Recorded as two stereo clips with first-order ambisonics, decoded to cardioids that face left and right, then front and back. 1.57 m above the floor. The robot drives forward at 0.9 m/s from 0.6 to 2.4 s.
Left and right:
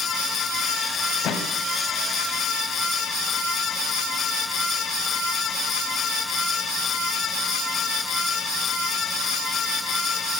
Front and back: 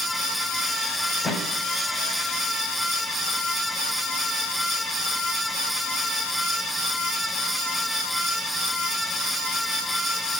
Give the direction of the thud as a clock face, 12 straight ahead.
10 o'clock.